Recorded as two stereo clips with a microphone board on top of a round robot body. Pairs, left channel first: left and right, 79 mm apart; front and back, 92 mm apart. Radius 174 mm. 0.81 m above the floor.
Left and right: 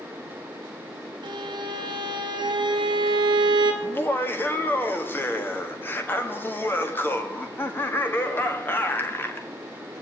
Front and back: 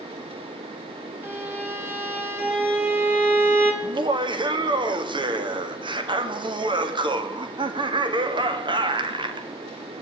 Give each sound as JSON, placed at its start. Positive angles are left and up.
{"t": 1.2, "sound": "a violin", "azimuth_deg": -115, "distance_m": 2.5}
{"t": 3.8, "sound": "laughter", "azimuth_deg": 150, "distance_m": 1.6}